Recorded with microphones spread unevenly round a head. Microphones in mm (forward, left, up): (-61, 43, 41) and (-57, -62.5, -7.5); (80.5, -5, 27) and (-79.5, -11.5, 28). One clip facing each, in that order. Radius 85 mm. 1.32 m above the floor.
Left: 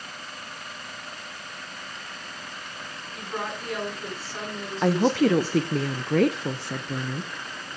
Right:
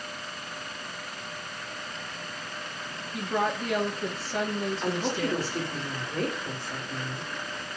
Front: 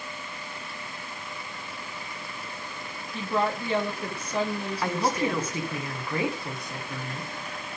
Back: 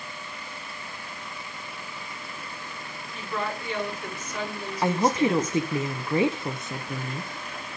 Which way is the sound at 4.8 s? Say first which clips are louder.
Left 12 dB, back 5 dB; 115° left.